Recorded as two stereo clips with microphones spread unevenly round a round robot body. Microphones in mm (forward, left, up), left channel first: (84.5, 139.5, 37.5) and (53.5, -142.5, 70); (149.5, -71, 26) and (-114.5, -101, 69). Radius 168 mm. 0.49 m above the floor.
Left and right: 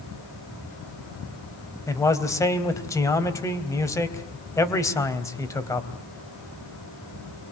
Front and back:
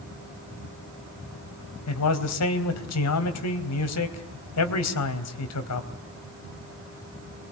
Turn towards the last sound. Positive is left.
turn(degrees=5)